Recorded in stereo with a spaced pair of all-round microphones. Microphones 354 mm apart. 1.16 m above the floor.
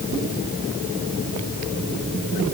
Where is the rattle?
I don't hear a rattle.